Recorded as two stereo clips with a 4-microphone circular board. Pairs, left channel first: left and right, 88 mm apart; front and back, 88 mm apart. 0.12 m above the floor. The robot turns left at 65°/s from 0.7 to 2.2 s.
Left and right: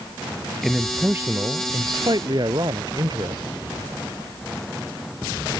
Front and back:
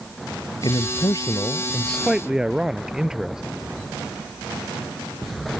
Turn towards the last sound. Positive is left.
turn(degrees=-100)